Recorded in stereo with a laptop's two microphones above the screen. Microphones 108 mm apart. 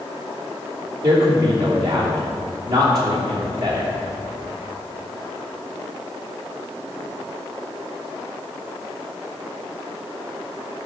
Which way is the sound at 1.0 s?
40° right (ahead or behind).